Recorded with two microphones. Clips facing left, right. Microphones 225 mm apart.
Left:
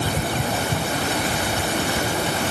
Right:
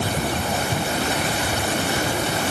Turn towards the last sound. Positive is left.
No sound to turn to.